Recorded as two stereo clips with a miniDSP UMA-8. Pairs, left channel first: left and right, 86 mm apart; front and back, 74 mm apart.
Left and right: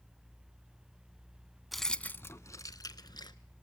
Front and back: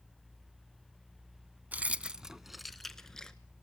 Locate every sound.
1.7 s keys jangling: 175° right, 0.7 m; by 3.4 s 75° left, 1.3 m